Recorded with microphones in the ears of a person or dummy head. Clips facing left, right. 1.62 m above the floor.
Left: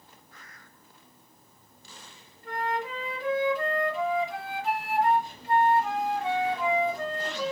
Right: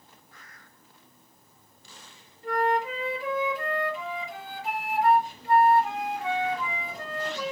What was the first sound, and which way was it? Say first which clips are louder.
A flute: right 6 dB; 15° right (ahead or behind).